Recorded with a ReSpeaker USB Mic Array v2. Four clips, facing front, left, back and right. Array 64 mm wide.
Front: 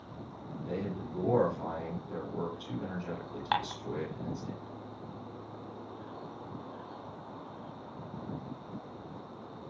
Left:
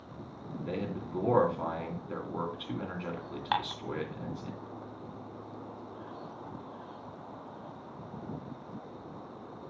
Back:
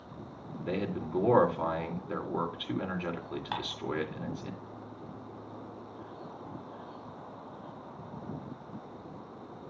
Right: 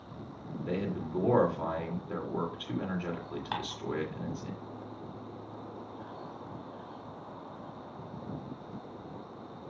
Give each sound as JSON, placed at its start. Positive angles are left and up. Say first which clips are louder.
{"t": 0.7, "sound": "a man speaking", "louder": "right 2 dB, back 4 dB", "azimuth_deg": 175, "distance_m": 3.0}
{"t": 3.5, "sound": "dishes clattering", "louder": "left 7 dB, front 8 dB", "azimuth_deg": 40, "distance_m": 0.9}